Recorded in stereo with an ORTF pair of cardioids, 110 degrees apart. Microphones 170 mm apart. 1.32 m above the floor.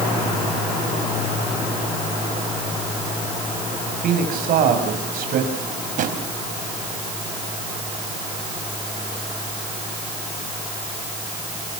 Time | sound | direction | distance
3.9 | a man speaking | 65° right | 7.5 m
5.5 | a drawer | 55° right | 4 m